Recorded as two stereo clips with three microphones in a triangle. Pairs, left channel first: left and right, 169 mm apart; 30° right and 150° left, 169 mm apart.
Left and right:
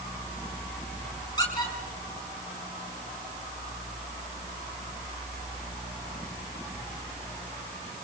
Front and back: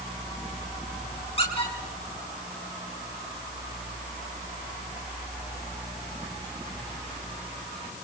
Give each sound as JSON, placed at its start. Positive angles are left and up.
{"t": 1.4, "sound": "a squeak", "azimuth_deg": 25, "distance_m": 5.5}